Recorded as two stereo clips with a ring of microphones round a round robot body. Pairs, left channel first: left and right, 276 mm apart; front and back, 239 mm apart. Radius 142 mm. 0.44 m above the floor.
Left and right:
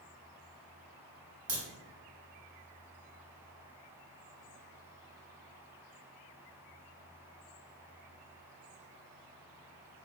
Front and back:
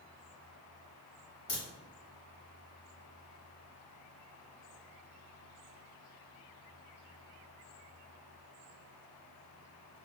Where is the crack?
70° right, 1.4 m.